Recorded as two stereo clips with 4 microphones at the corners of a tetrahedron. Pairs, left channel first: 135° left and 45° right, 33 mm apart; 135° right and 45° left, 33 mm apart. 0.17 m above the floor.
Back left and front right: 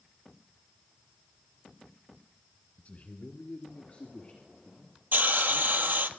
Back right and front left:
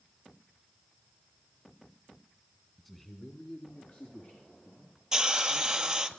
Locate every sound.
2.8 s a man speaking: 135° left, 1.8 m; by 6.1 s 160° right, 6 m
5.1 s a hiss: 25° right, 0.9 m